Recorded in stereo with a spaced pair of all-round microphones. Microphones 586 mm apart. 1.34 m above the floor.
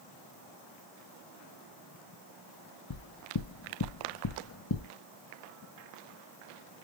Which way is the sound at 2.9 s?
40° left (ahead or behind).